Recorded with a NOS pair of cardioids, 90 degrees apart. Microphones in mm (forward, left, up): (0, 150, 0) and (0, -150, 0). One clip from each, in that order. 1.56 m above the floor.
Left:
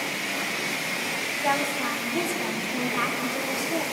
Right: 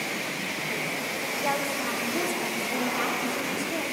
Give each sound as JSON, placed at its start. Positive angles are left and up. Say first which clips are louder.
{"t": 1.4, "sound": "a woman speaking", "louder": "left 3 dB", "azimuth_deg": 5, "distance_m": 3.0}